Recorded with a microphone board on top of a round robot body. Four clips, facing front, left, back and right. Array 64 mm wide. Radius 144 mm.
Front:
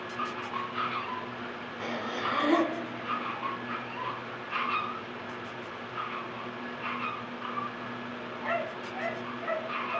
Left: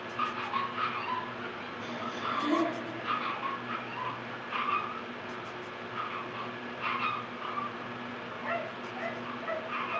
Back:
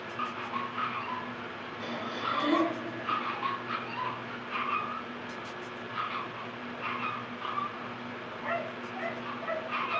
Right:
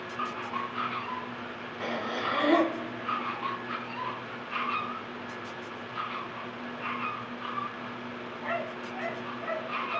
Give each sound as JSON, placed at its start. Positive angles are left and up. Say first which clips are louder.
{"t": 1.8, "sound": "breathing", "louder": "right 5 dB, front 2 dB", "azimuth_deg": -65, "distance_m": 1.0}